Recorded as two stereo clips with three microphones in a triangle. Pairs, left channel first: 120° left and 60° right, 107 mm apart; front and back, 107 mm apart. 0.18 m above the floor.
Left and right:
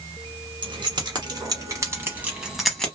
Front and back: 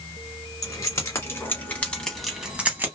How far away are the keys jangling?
About 1.3 m.